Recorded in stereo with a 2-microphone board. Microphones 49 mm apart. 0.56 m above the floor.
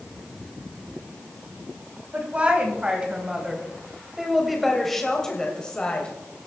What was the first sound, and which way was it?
A woman speaking, 30° right (ahead or behind).